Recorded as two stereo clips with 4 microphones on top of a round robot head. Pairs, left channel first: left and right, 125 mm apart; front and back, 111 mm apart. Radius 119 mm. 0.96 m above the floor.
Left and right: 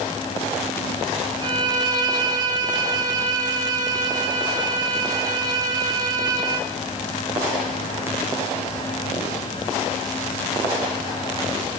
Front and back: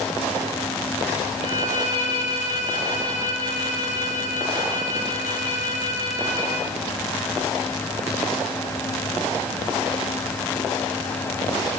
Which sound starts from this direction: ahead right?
A violin, at 1.4 s.